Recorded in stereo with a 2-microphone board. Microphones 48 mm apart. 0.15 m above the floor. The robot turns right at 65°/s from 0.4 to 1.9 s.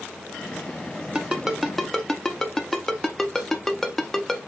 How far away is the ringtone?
About 0.6 m.